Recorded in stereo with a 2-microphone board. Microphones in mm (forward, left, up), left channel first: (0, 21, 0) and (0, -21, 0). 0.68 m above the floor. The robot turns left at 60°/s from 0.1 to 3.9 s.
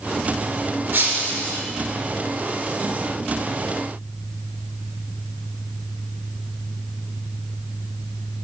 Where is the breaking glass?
45° right, 5.5 m; by 1.6 s 85° right, 5.5 m.